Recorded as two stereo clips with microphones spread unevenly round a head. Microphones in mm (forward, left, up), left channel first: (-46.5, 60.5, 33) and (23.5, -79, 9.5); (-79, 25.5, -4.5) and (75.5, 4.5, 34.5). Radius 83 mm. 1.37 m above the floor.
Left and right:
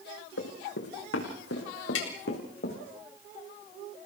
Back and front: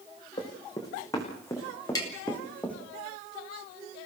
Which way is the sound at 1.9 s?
105° left.